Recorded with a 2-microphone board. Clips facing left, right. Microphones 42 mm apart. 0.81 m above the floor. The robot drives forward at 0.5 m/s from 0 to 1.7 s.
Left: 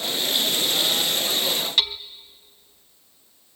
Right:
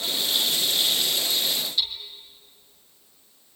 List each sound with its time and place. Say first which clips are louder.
1.8 s hammering: left 7 dB; 70° left (ahead or behind), 0.9 m